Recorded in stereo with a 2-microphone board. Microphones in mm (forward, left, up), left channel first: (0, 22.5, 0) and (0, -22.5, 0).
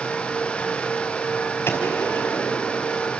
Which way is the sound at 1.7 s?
55° left (ahead or behind).